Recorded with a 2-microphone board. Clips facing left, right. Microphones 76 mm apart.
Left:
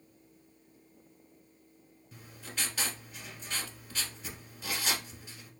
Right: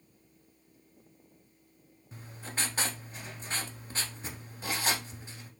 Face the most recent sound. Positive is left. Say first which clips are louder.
# right 3 dB
turn(degrees=-35)  # may be behind; listen again after turning